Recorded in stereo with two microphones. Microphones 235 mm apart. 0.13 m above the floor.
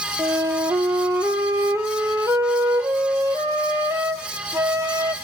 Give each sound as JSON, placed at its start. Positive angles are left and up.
{"t": 0.2, "sound": "a flute", "side_deg": -15, "distance_m": 0.5}